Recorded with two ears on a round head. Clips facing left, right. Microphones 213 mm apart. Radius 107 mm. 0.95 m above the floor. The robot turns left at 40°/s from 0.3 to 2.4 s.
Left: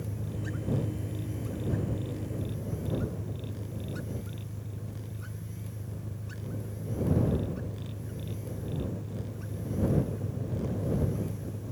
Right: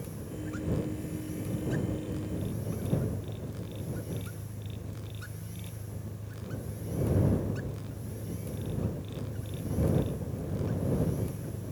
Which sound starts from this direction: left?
An engine running, at 0.0 s.